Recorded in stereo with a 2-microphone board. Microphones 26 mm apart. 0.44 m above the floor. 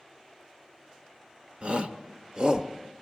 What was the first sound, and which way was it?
A shout, 45° right (ahead or behind).